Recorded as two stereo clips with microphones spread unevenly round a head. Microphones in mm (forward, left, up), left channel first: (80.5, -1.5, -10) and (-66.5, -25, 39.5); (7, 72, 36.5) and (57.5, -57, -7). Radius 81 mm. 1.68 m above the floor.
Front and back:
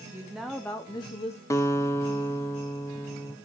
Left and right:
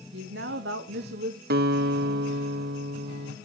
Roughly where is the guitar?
Ahead right.